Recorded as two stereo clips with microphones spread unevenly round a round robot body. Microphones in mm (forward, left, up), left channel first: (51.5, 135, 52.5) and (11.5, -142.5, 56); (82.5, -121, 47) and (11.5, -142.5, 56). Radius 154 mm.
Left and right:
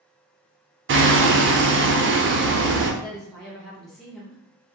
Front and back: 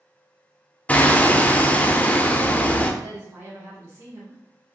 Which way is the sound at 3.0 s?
170° left.